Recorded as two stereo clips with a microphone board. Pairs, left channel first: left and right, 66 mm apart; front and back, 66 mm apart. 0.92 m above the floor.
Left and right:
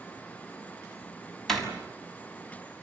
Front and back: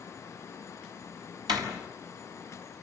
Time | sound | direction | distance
1.5 | a door slam | 175° left | 6 m